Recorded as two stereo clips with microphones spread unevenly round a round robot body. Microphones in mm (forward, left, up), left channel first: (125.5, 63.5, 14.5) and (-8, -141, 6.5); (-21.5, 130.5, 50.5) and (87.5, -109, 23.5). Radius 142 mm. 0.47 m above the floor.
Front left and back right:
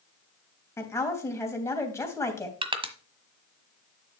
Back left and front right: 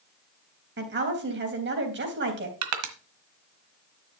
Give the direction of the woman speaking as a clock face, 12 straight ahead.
1 o'clock.